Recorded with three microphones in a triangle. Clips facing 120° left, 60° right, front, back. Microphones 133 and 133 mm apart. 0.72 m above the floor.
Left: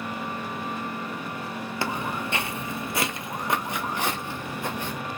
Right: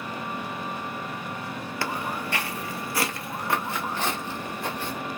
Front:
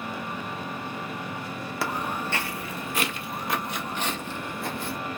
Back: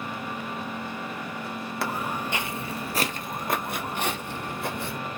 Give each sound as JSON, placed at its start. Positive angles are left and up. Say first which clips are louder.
{"t": 1.8, "sound": "footsteps", "louder": "left 1 dB, front 1 dB", "azimuth_deg": 85, "distance_m": 0.7}